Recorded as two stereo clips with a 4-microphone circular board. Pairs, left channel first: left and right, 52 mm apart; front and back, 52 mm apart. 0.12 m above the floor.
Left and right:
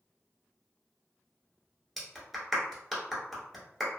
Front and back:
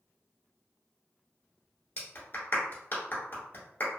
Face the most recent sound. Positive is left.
turn(degrees=-5)